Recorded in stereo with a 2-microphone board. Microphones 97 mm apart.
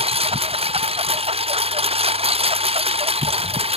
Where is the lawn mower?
90° right.